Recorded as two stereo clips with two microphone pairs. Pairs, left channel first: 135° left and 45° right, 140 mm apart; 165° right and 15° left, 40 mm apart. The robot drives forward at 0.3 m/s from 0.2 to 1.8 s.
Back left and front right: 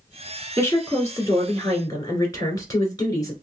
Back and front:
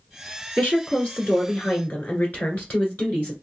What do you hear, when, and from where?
0.6 s a woman speaking: 170° right, 1.7 m